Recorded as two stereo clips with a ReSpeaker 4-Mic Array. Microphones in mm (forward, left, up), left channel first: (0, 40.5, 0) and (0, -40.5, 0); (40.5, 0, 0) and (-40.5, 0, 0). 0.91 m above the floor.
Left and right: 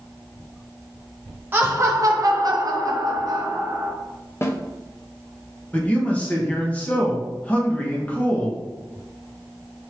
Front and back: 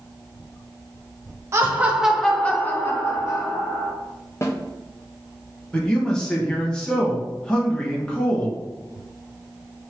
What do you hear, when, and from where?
1.5 s laughter: 145° right, 0.5 m; by 3.9 s 45° right, 1.3 m
4.4 s a snare drum: 45° left, 0.6 m
5.7 s a man speaking: 60° left, 0.9 m